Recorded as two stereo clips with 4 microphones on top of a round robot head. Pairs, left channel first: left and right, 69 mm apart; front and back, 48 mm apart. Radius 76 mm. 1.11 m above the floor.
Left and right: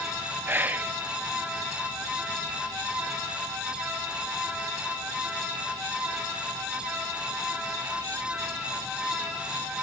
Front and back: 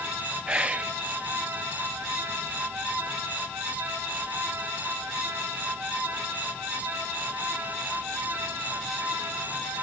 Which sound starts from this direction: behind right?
Whispering, at 0.5 s.